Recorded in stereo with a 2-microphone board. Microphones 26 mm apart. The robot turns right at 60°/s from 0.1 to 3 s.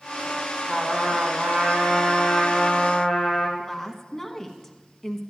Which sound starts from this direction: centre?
A woman speaking, at 3.6 s.